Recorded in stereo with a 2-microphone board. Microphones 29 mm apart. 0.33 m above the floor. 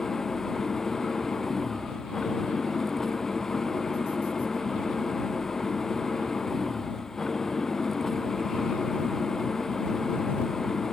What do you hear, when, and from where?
0.0 s an engine running: 15° left (ahead or behind)